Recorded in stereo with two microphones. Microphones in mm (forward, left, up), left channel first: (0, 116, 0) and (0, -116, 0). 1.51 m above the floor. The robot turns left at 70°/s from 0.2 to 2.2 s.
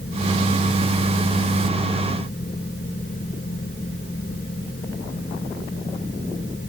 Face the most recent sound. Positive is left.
No sound to turn to.